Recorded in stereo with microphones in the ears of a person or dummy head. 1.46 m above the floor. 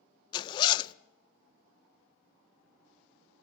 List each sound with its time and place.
0.3 s a zipper: 30° left (ahead or behind), 0.5 m